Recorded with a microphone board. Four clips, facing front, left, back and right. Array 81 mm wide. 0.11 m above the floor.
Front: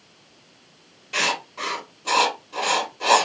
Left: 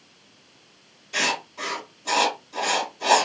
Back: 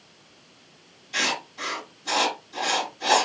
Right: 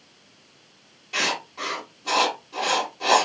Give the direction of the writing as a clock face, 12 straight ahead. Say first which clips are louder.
Left 1 dB, front 3 dB; 1 o'clock.